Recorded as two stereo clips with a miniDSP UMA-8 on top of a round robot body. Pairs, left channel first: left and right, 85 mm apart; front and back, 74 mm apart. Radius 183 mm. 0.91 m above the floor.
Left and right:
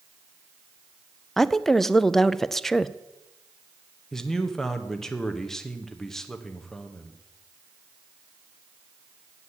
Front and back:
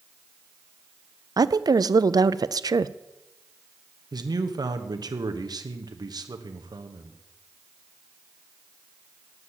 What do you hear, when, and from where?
1.4 s a woman speaking: 175° left, 0.6 m
4.1 s a man speaking: 175° left, 1.3 m